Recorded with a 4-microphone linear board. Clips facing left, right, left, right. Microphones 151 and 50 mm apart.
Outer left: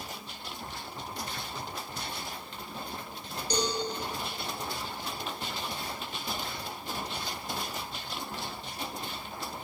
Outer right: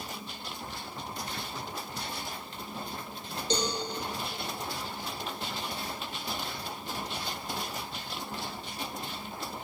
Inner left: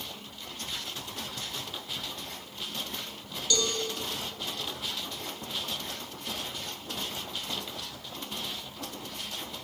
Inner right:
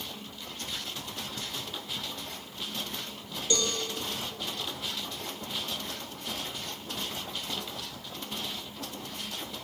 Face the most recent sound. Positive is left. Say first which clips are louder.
# even, even
turn(degrees=-25)  # may be behind; listen again after turning